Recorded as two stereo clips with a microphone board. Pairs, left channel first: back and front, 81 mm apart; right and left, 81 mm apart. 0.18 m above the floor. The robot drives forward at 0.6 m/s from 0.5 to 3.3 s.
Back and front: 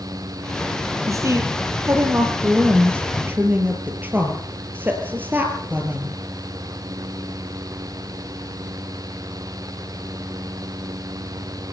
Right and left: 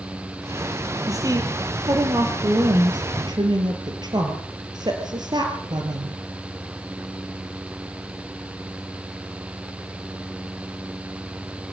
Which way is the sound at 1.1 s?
45° left.